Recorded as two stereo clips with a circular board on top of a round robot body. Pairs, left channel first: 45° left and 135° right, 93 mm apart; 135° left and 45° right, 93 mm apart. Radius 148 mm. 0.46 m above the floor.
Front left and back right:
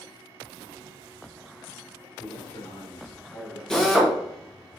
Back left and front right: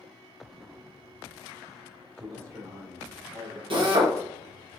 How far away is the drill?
About 1.3 m.